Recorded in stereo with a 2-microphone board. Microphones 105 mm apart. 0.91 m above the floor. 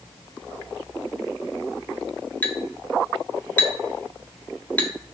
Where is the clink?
15° left (ahead or behind), 0.7 m.